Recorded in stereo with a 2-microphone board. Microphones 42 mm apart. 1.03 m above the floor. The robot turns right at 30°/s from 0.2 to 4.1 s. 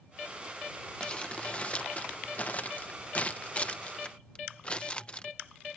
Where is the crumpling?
20° left (ahead or behind); by 5.3 s 25° left (ahead or behind).